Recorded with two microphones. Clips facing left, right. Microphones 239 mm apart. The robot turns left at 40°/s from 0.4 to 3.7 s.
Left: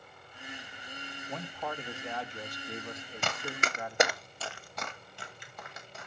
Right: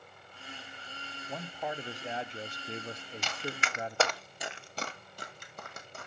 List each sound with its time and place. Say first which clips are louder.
1.3 s a man speaking: right 1 dB; 5° right (ahead or behind), 0.8 m; by 4.2 s 30° right (ahead or behind), 0.8 m
3.2 s running footsteps: left 2 dB; 55° left (ahead or behind), 1.1 m; by 6.1 s 50° right (ahead or behind), 2.5 m